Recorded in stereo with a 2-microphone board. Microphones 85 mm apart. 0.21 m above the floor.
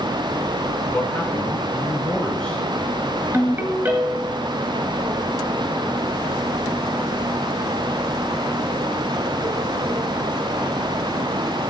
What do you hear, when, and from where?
0.9 s a man speaking: 15° left (ahead or behind), 3 m
3.3 s a ringtone: 25° right (ahead or behind), 1.8 m